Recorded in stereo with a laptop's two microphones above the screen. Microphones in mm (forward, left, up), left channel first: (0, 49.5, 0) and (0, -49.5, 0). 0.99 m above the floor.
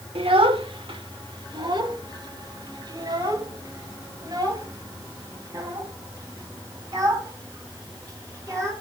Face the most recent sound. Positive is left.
turn(degrees=-35)  # may be behind; listen again after turning